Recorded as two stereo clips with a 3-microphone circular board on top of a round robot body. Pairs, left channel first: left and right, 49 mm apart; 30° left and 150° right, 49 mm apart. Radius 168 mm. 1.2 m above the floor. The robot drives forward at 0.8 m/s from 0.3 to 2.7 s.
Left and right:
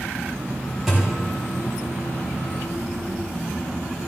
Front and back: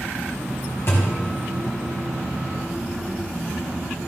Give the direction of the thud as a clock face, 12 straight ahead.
12 o'clock.